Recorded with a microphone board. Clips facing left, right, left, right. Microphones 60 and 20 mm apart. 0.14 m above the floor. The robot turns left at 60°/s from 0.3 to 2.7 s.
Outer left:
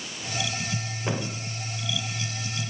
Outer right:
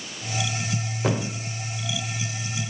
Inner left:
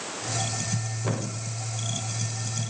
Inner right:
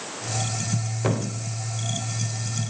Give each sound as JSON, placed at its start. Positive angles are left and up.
{"t": 1.0, "sound": "a thud", "side_deg": -75, "distance_m": 6.5}